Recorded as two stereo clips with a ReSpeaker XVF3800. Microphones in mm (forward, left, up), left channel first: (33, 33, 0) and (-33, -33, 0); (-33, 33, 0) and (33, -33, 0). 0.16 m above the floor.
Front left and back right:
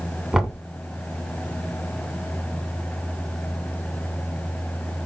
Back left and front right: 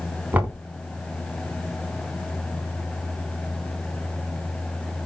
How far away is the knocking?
About 0.7 m.